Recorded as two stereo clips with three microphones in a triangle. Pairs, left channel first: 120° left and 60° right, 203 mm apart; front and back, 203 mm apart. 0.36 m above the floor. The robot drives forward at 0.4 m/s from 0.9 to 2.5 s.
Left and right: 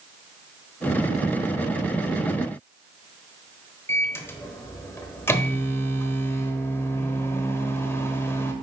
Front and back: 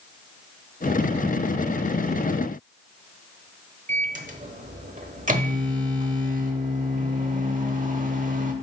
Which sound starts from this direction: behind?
A microwave, at 3.9 s.